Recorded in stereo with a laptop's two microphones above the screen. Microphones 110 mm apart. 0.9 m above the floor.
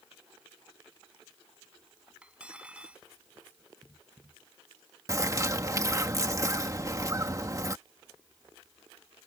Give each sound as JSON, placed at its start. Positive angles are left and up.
{"t": 2.2, "sound": "cutlery clinking", "side_deg": -10}
{"t": 5.1, "sound": "a bird", "side_deg": -30}